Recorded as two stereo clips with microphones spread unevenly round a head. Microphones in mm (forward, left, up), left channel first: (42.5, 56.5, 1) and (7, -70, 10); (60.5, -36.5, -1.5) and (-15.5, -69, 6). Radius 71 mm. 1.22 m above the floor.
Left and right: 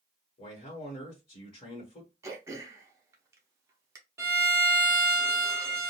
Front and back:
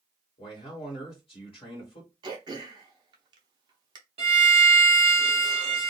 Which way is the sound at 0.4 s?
30° left.